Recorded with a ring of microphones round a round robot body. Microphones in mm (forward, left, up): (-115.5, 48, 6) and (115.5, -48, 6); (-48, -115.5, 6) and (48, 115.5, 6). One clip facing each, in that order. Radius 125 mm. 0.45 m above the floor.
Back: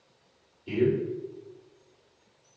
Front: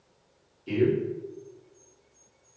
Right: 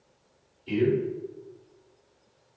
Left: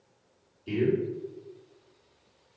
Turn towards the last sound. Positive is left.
turn(degrees=60)